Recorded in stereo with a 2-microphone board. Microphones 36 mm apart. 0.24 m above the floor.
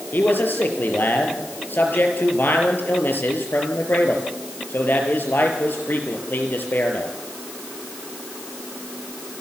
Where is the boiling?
No boiling in this recording.